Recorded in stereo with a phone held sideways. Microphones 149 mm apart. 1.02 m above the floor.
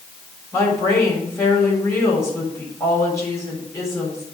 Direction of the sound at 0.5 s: 20° left (ahead or behind).